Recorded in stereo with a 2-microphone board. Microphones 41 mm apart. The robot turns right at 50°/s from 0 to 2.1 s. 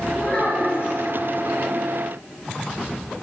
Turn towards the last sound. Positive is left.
turn(degrees=125)